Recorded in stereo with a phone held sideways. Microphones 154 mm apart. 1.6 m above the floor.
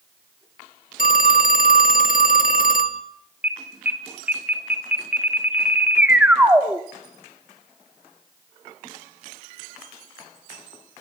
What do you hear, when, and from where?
1.0 s a phone ringing: 60° left (ahead or behind), 1.6 m
3.4 s an alarm: 10° right (ahead or behind), 2.5 m